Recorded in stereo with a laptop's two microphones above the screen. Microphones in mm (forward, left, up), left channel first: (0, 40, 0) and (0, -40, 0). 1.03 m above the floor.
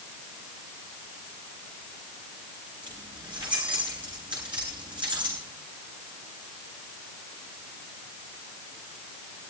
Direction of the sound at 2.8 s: 80° right.